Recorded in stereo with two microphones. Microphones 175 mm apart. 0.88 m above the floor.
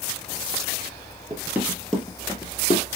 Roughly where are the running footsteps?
Centre.